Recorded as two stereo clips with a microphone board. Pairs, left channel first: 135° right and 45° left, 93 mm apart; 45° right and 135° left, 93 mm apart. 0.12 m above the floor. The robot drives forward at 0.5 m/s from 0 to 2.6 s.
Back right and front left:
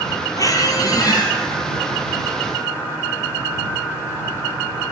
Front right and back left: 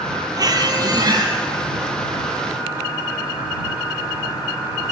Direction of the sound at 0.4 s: 175° left.